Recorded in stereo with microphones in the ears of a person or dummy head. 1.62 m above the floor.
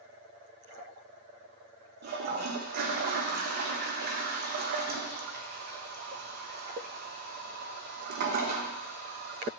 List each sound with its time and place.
2.0 s a toilet flushing: 50° right (ahead or behind), 0.9 m